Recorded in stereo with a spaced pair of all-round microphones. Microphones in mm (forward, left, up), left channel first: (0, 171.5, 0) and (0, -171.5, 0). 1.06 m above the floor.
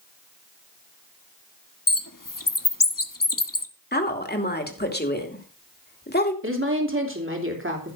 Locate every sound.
1.9 s a bird: 65° left (ahead or behind), 1.2 m
3.9 s a woman speaking: 30° left (ahead or behind), 2.5 m
6.4 s a woman speaking: 35° right (ahead or behind), 3 m